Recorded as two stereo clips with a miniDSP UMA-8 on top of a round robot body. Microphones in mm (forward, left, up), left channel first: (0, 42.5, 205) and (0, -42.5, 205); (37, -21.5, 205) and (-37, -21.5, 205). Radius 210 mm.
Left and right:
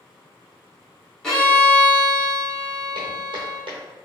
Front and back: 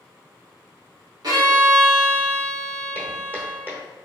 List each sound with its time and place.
1.2 s a violin: 175° left, 1.6 m
3.0 s footsteps: 115° right, 0.9 m